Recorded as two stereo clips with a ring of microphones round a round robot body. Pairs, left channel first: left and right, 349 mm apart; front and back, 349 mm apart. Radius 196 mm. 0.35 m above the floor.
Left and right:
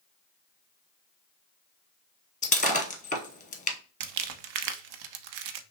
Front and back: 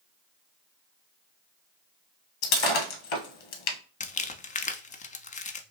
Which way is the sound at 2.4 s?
20° left.